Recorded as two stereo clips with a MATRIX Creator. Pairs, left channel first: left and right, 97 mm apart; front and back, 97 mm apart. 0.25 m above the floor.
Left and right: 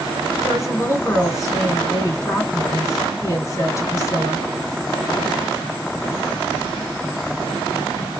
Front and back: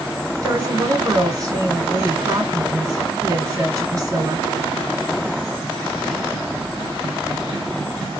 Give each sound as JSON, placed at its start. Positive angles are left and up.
{"t": 0.4, "sound": "a woman speaking", "azimuth_deg": 130, "distance_m": 2.0}